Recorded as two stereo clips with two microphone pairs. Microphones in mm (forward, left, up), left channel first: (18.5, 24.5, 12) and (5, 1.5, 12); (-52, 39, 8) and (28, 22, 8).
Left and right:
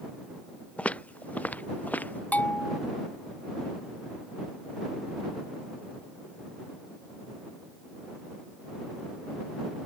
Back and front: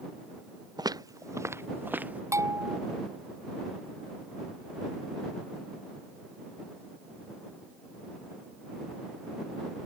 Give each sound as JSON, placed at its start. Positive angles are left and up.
{"t": 0.8, "sound": "footsteps", "azimuth_deg": 20}
{"t": 2.3, "sound": "a bell", "azimuth_deg": 40}